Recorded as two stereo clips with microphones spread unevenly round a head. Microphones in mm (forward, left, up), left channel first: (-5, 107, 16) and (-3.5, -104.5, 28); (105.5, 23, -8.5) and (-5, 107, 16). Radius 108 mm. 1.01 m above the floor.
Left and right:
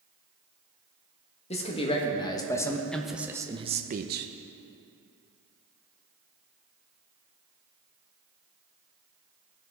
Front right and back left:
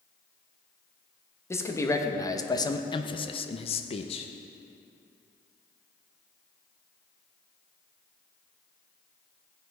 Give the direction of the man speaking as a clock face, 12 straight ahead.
11 o'clock.